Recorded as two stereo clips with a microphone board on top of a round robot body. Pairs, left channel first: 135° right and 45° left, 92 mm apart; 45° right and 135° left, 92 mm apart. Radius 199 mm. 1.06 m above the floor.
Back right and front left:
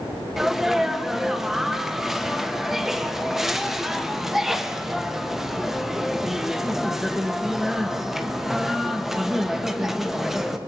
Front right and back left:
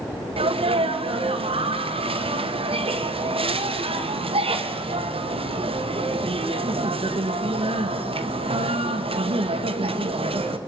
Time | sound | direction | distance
0.4 | a sneeze | 130° left | 1.6 m